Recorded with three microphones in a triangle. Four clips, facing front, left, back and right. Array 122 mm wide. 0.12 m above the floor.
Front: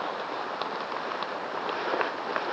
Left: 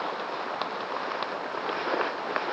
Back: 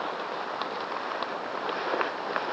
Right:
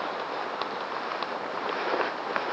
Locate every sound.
Only background noise.